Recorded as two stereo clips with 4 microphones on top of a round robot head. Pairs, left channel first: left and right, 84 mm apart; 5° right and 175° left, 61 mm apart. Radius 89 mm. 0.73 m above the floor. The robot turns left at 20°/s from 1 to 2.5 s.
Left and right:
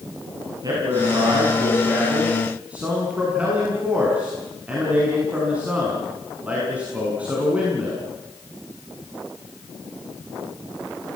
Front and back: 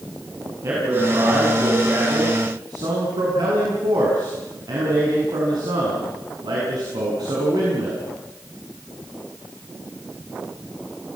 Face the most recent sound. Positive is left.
turn(degrees=-165)